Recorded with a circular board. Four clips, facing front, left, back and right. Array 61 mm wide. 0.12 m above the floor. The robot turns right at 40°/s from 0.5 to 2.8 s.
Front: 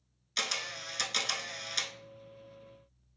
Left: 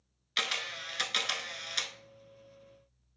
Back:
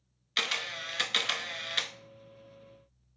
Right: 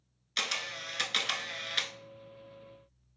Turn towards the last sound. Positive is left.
turn(degrees=-110)